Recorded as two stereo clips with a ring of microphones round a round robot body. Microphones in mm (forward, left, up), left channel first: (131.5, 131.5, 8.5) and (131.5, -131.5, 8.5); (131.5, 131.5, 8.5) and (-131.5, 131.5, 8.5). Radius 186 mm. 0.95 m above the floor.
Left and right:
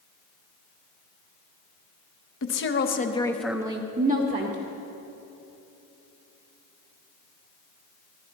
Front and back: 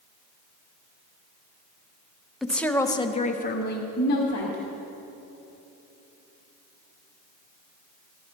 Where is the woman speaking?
90° left, 1.1 m; by 4.6 s 50° right, 1.4 m.